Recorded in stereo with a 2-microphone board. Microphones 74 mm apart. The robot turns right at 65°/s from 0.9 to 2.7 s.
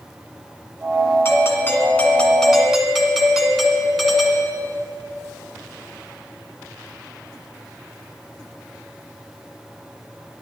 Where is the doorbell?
85° left, 1.7 m; by 4.5 s straight behind, 1.7 m.